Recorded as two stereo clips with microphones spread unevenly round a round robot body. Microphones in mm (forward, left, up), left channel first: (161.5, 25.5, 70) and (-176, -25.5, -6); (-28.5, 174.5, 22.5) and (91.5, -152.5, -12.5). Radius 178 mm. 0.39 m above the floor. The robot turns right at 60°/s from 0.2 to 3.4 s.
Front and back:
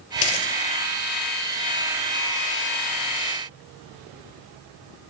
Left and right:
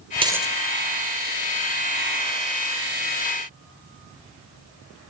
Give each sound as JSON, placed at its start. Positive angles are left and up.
{"t": 0.2, "sound": "a dropped coin", "azimuth_deg": 5, "distance_m": 5.5}